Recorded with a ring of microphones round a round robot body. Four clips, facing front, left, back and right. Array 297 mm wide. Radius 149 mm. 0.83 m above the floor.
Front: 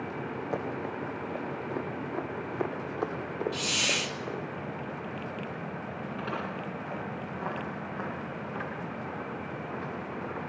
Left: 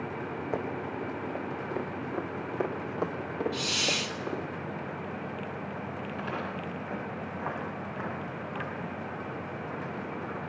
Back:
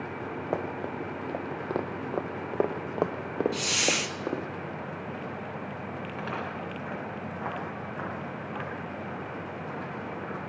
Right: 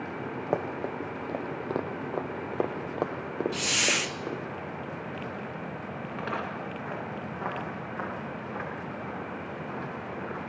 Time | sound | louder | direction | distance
0.5 | running footsteps | right 4 dB, back 3 dB | 120° right | 2 m
3.5 | a hiss | right 2 dB, back 3 dB | 110° right | 1.3 m
6.1 | footsteps | right 3 dB, front 1 dB | 110° right | 10 m